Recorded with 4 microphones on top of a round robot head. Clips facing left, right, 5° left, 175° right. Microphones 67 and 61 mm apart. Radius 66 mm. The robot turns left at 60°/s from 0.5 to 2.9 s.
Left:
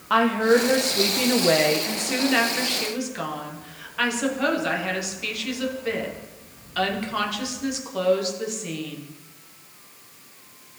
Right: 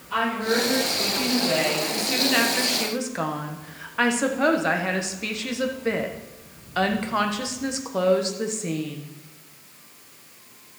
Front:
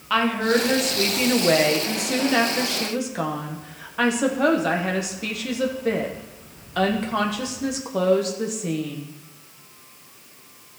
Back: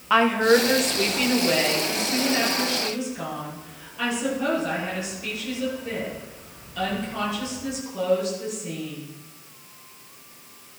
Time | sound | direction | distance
0.1 | a woman speaking | 115° left | 1.3 m